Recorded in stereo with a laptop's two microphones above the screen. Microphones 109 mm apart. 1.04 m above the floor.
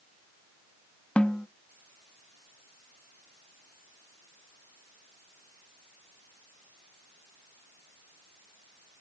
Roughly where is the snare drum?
Centre.